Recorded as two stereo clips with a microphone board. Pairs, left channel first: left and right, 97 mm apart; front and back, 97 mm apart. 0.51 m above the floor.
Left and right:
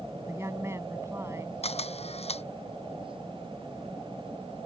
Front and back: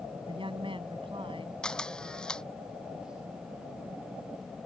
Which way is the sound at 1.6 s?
80° left.